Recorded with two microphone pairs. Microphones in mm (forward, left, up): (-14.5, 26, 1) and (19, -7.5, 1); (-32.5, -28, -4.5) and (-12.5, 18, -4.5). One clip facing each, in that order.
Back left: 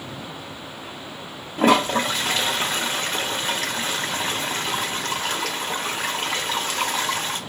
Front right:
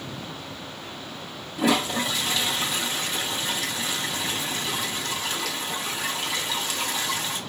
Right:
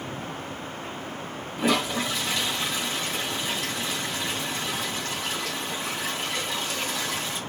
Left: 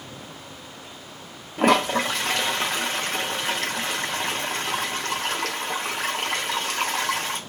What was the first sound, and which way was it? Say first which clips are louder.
A toilet flushing: back left 5 dB, left 5 dB; 95° left.